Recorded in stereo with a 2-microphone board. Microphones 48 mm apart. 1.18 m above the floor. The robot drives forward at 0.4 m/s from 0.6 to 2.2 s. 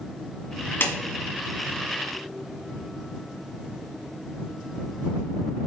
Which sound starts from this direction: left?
A clap, at 0.8 s.